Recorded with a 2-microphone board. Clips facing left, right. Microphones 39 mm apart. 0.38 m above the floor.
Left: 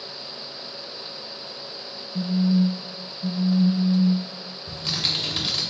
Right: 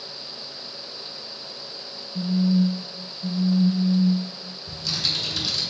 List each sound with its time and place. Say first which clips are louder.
2.1 s a phone buzzing: even; 55° left (ahead or behind), 0.6 m
4.7 s typing on a keyboard: left 1 dB; 35° left (ahead or behind), 0.7 m